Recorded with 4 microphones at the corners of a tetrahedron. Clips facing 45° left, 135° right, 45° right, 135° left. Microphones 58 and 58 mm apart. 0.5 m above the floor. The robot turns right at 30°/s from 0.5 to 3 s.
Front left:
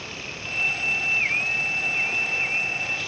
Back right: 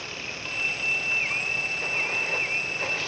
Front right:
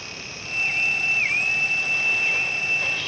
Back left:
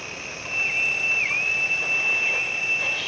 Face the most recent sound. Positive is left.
turn(degrees=-140)